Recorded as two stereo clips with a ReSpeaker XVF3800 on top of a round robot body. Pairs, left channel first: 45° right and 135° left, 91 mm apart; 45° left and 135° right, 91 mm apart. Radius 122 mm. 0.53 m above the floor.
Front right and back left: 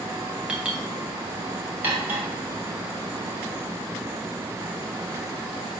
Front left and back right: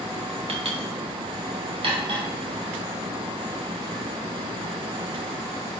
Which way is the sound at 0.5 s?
145° right.